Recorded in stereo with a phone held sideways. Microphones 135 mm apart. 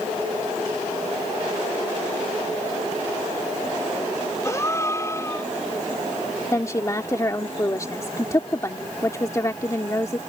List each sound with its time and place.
4.4 s a gasp: 25° left (ahead or behind)
6.5 s a woman speaking: 25° left (ahead or behind)